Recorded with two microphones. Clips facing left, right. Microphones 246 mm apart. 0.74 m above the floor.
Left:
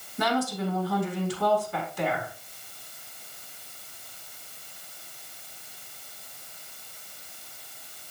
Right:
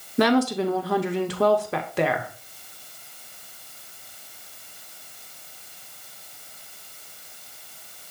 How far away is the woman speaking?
About 0.9 m.